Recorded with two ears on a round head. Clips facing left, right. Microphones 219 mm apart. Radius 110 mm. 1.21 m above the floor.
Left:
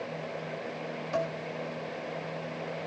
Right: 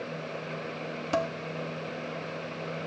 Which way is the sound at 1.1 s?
70° right (ahead or behind).